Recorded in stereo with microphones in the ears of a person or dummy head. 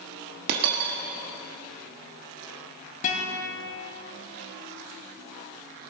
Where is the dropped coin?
55° right (ahead or behind), 1.3 m.